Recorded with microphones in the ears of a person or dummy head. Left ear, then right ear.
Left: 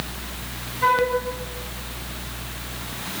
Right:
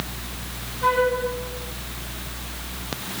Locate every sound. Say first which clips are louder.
0.8 s a flute: left 1 dB; 45° left (ahead or behind), 6.5 m